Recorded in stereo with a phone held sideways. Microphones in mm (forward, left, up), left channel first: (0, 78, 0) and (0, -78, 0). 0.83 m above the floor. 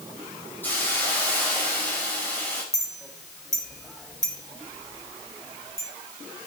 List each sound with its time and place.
0.6 s a hiss: 10° left (ahead or behind), 5 m
2.7 s a clink: 5° left (ahead or behind), 2.5 m